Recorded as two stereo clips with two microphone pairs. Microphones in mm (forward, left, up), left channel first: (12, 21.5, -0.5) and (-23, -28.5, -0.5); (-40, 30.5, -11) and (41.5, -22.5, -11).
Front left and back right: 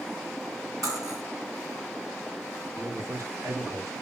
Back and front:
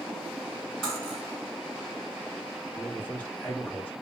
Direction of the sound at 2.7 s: 140° right.